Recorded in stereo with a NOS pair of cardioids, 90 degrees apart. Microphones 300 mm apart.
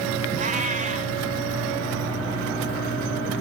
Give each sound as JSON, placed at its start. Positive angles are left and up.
{"t": 0.4, "sound": "a cat meowing", "azimuth_deg": -25, "distance_m": 3.5}